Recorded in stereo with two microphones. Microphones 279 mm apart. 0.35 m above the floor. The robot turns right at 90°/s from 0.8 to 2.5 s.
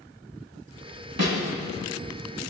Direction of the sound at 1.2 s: 60° right (ahead or behind).